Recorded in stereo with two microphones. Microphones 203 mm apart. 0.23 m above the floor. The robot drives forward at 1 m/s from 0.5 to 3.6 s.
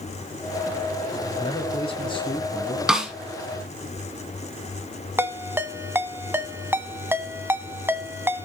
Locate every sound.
1.4 s a man speaking: 25° left (ahead or behind), 1.1 m; by 2.8 s 20° left (ahead or behind), 1.5 m
2.9 s a snare drum: 5° right (ahead or behind), 1.3 m
5.2 s a ringtone: 10° right (ahead or behind), 0.7 m